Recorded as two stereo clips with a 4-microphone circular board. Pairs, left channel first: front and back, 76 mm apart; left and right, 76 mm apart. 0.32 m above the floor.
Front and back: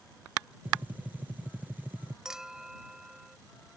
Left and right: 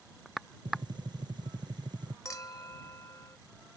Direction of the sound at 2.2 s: 100° left.